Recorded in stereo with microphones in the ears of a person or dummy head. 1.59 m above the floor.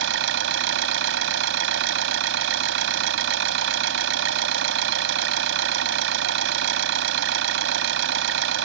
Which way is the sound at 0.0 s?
65° right (ahead or behind).